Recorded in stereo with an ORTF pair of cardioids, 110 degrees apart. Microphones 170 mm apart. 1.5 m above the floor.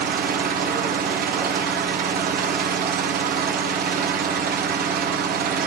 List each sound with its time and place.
0.0 s an engine running: 65° right, 1.1 m